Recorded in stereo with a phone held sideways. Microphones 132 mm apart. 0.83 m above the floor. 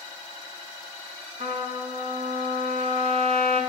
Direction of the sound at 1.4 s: 65° right (ahead or behind).